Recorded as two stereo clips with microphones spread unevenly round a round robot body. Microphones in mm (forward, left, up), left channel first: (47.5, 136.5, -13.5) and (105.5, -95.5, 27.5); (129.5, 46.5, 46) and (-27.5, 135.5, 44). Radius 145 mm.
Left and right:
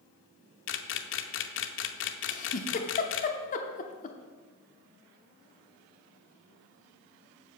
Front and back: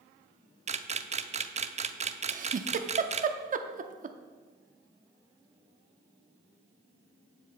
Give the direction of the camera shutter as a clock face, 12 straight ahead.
9 o'clock.